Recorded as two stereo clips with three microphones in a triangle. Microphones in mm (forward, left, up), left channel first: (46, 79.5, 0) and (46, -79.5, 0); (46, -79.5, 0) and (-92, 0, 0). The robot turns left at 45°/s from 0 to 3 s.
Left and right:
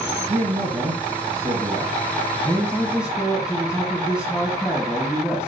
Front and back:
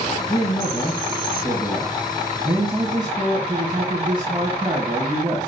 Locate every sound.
0.3 s a man speaking: 50° right, 1.7 m; by 5.5 s 170° right, 1.7 m